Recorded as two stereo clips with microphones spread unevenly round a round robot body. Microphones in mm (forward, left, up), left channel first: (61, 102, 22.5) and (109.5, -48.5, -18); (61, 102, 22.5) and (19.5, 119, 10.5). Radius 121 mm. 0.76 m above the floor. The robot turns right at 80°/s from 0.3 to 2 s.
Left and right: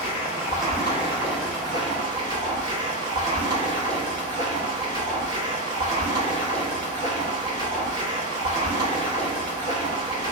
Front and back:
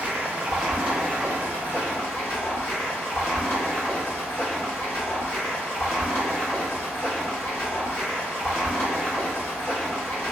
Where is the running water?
160° left, 1.0 m; by 10.3 s 60° right, 1.0 m.